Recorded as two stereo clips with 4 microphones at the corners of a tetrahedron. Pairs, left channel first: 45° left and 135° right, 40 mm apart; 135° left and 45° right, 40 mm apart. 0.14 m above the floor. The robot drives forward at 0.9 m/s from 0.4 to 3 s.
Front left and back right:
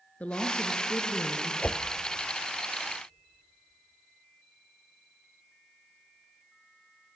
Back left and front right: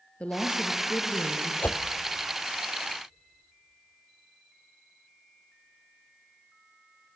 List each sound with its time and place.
0.2 s a woman speaking: 90° left, 2 m; by 1.5 s 120° left, 2.5 m
1.6 s a whoosh: 100° left, 0.9 m; by 1.8 s 110° left, 0.9 m